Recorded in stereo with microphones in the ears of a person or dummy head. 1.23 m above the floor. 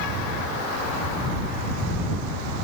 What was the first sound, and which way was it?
Only background noise.